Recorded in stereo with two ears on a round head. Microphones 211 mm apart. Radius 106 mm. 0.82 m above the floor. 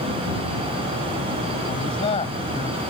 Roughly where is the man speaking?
Left.